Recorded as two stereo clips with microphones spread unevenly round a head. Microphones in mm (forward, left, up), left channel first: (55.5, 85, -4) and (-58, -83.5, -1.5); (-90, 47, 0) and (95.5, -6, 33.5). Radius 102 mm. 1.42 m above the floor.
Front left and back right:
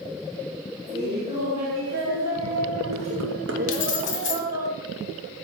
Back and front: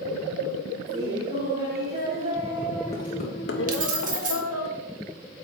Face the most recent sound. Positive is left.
turn(degrees=25)